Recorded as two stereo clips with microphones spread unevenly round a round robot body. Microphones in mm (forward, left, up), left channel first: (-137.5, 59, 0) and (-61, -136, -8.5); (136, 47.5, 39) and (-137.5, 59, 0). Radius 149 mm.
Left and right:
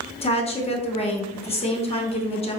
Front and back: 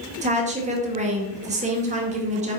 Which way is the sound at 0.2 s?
155° left.